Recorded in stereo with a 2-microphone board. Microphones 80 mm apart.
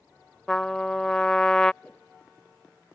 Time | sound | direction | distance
0.5 | a trumpet | 10° left (ahead or behind) | ?
1.8 | a whoosh | 15° left (ahead or behind) | ?